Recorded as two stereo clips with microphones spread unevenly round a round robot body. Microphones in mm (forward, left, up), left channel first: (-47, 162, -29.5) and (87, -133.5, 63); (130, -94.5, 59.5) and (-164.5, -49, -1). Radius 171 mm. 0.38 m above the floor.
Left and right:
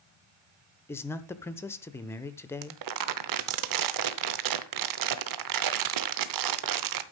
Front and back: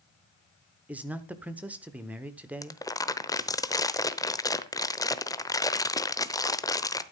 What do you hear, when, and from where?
0.9 s a man speaking: 125° left, 0.8 m
2.6 s crumpling: 95° right, 0.9 m